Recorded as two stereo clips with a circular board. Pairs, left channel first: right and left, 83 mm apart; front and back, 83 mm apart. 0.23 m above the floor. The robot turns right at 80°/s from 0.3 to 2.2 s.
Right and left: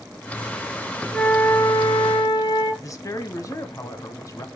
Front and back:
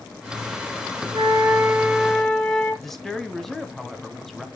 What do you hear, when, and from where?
1.1 s a flute: 160° right, 3.5 m; by 2.7 s 75° right, 3.5 m
2.8 s a woman speaking: 85° right, 1.5 m